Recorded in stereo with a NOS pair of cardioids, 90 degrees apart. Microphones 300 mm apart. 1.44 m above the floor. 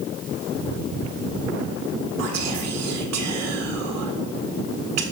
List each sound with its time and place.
2.2 s whispering: 65° right, 1.7 m